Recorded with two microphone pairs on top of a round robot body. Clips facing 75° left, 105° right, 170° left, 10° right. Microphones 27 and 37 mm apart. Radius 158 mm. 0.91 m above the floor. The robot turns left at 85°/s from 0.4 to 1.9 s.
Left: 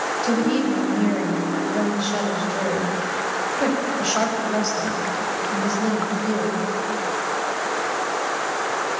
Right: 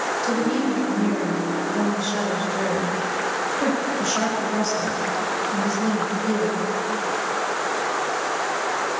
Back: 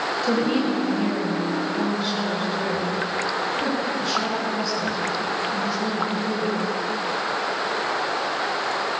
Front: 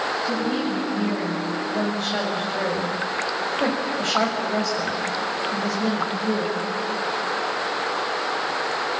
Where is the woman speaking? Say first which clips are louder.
Left 3 dB, back 3 dB; 150° left, 6.5 m; by 6.6 s 25° left, 6.5 m.